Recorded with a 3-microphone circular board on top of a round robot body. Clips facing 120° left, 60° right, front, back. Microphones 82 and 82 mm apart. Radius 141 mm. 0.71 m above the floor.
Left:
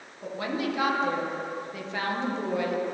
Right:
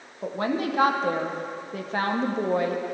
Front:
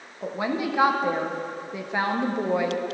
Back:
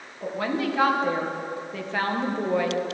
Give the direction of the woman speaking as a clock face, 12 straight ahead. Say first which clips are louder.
Right 4 dB, even; 2 o'clock.